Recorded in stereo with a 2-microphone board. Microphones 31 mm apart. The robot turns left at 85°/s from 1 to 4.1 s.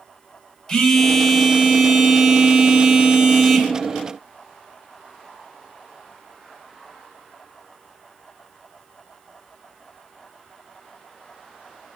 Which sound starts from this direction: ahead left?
A phone buzzing, at 0.7 s.